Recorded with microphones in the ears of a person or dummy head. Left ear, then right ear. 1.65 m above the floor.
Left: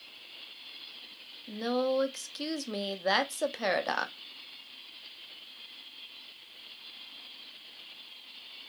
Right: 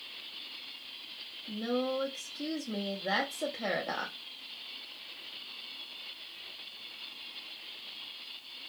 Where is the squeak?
No squeak in this recording.